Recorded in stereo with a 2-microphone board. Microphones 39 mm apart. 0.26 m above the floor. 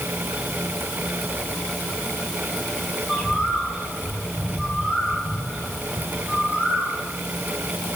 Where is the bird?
5° right (ahead or behind), 10 m.